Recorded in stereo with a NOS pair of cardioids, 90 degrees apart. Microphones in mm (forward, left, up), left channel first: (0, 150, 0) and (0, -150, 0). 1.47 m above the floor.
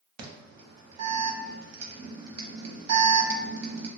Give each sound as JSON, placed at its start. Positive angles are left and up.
{"t": 0.2, "sound": "an alarm", "azimuth_deg": -60, "distance_m": 0.8}